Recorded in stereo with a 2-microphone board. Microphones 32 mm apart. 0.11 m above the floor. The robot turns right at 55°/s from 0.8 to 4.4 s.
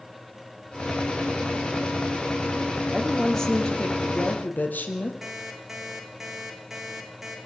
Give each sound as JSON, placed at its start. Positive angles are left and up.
{"t": 2.9, "sound": "a woman speaking", "azimuth_deg": -15, "distance_m": 3.5}
{"t": 5.2, "sound": "an alarm clock", "side_deg": -10, "distance_m": 3.5}